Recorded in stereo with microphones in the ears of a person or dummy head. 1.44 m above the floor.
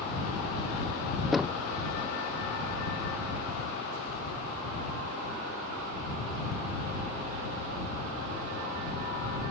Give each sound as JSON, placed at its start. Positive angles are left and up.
{"t": 1.3, "sound": "knocking", "side_deg": 0}